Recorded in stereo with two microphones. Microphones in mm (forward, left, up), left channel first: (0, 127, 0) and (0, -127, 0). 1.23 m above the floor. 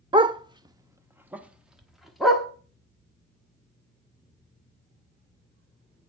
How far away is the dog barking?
About 0.7 m.